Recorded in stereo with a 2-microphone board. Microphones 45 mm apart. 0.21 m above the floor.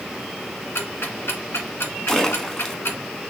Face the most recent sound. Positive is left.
turn(degrees=10)  # may be behind; listen again after turning